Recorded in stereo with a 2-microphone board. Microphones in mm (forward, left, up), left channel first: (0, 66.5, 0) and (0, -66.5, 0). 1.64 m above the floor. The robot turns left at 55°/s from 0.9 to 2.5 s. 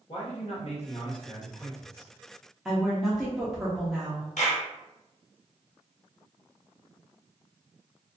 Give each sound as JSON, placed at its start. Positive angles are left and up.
{"t": 0.1, "sound": "a man speaking", "azimuth_deg": 65, "distance_m": 1.0}
{"t": 2.6, "sound": "a woman speaking", "side_deg": 0, "distance_m": 0.5}
{"t": 4.4, "sound": "a clap", "side_deg": 70, "distance_m": 0.8}